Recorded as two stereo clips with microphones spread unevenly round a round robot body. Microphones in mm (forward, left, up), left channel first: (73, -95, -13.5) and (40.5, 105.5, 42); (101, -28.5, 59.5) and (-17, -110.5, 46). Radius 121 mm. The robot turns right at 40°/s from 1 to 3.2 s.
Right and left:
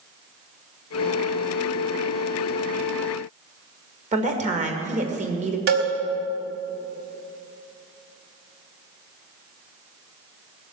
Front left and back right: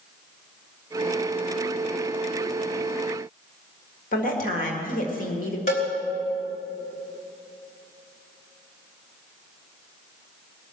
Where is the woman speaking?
40° left, 1.9 m.